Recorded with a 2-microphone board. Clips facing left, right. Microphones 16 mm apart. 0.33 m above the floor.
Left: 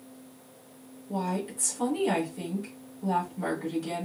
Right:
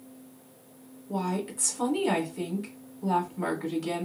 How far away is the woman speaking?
About 2.5 m.